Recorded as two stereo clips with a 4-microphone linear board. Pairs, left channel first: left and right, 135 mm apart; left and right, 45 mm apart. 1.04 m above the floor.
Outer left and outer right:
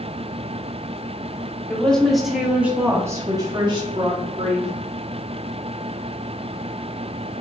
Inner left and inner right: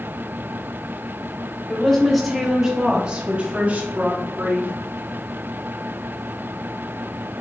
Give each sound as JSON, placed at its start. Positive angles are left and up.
{"t": 1.7, "sound": "a woman speaking", "side_deg": 10, "distance_m": 2.0}